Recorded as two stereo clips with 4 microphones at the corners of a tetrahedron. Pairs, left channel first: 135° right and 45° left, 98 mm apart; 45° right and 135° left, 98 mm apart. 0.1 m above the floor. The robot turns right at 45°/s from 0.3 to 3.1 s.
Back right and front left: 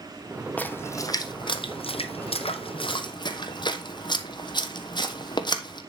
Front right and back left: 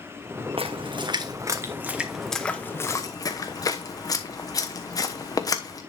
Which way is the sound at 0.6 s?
150° left.